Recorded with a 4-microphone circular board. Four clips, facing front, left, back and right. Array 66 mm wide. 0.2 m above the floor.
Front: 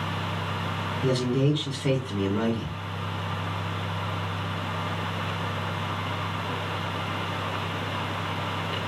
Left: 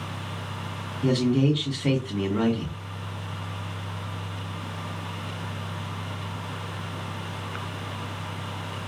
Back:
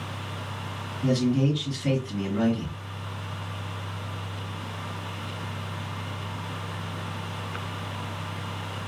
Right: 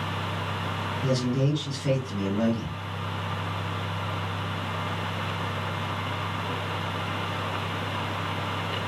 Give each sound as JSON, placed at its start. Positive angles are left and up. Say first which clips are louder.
{"t": 1.0, "sound": "a man speaking", "louder": "left 5 dB, back 1 dB", "azimuth_deg": 60, "distance_m": 1.5}